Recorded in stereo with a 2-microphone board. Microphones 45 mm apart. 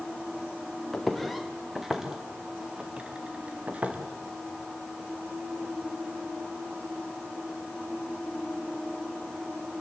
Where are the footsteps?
5° left (ahead or behind), 4.5 m; by 4.0 s 35° right (ahead or behind), 5 m.